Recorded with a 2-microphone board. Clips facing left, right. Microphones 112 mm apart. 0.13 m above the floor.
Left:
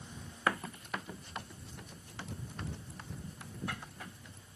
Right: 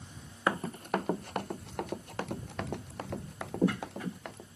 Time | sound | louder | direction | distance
0.5 | running footsteps | right 4 dB | 20° right (ahead or behind) | ?